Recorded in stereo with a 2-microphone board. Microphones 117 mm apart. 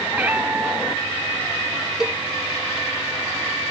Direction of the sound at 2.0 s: 5° right (ahead or behind).